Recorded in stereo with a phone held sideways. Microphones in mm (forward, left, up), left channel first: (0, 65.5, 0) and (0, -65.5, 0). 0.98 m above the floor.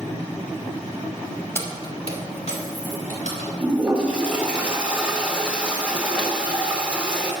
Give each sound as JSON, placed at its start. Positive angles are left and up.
{"t": 1.6, "sound": "keys jangling", "side_deg": 20, "distance_m": 1.5}
{"t": 3.6, "sound": "a toilet flushing", "side_deg": -10, "distance_m": 2.0}